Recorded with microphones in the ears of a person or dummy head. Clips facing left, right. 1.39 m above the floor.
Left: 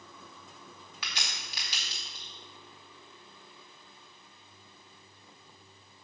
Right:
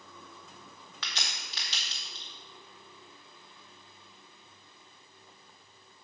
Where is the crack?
15° left (ahead or behind), 1.5 m.